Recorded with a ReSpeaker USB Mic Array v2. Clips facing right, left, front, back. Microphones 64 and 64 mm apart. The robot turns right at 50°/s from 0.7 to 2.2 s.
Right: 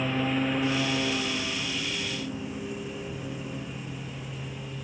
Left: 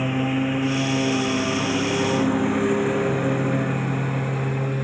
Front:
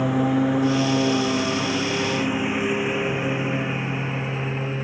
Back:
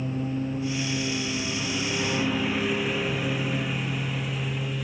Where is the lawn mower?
10° left; by 4.8 s 55° left.